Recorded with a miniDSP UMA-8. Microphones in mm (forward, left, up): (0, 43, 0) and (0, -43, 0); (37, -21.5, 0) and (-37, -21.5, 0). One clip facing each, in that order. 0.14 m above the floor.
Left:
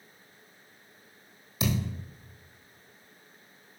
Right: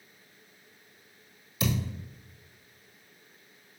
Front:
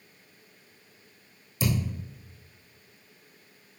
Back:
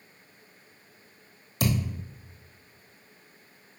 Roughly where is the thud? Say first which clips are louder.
Left 1 dB, back 1 dB; behind left.